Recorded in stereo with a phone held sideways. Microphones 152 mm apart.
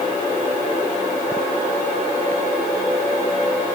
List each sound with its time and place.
Only background noise.